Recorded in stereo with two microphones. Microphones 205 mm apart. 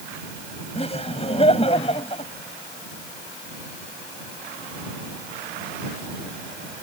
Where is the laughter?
30° left (ahead or behind).